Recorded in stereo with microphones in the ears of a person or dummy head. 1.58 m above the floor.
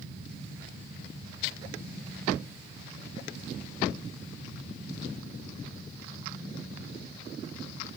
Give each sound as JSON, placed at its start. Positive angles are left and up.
{"t": 0.0, "sound": "a fan", "side_deg": 40, "distance_m": 5.5}